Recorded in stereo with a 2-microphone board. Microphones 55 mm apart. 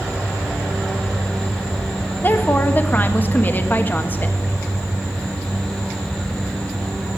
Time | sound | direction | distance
2.2 | a woman speaking | 35° left (ahead or behind) | 1.3 m